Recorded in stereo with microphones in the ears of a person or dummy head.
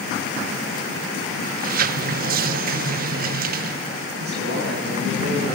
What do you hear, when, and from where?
1.4 s a sliding door: 50° right (ahead or behind), 0.9 m
4.2 s a man speaking: 55° right (ahead or behind), 9.5 m